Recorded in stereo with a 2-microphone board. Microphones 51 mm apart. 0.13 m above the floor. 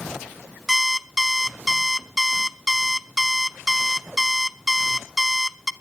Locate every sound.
0.7 s an alarm clock: 5° right (ahead or behind), 0.6 m